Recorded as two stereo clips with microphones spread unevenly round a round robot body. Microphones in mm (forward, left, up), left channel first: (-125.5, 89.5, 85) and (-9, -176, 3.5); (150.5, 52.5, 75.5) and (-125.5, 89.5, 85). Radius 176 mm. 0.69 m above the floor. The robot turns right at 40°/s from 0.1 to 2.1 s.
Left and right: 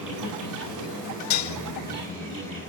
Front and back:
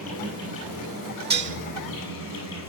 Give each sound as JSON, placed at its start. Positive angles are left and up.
{"t": 0.0, "sound": "an insect", "azimuth_deg": -75, "distance_m": 8.5}
{"t": 1.3, "sound": "dishes clattering", "azimuth_deg": 115, "distance_m": 1.2}